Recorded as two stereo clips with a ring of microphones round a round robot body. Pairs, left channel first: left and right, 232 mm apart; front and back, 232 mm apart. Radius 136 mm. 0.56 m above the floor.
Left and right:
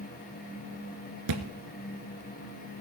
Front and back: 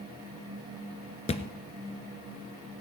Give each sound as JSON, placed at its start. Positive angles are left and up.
{"t": 1.3, "sound": "a thud", "azimuth_deg": -65, "distance_m": 1.2}